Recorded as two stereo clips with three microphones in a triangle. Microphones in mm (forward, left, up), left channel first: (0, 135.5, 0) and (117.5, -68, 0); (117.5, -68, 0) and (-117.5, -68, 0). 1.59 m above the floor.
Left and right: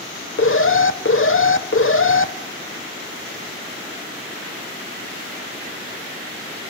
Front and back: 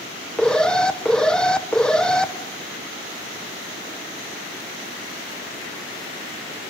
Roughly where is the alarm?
Left.